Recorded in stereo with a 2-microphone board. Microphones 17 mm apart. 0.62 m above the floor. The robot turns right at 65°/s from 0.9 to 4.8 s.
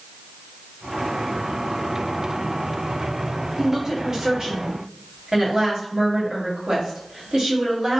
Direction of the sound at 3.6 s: 155° right.